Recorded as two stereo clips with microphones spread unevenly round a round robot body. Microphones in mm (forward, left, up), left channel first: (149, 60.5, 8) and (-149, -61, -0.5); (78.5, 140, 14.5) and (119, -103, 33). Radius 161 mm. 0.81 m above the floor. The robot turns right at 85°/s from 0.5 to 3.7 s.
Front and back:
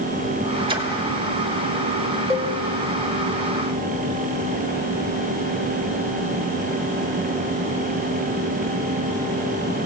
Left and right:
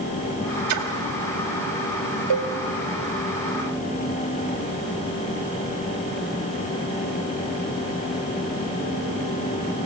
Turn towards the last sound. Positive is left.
turn(degrees=40)